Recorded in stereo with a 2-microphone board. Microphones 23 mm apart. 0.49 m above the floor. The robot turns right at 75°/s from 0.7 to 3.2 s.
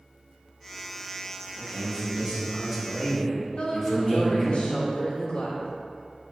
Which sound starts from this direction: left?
A woman speaking, at 3.6 s.